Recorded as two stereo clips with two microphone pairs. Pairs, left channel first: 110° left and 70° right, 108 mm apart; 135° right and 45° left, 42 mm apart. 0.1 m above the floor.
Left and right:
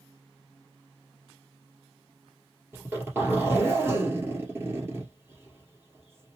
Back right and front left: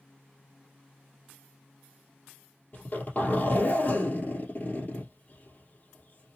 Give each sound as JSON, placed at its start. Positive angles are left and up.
{"t": 2.7, "sound": "a zipper", "azimuth_deg": -130, "distance_m": 2.5}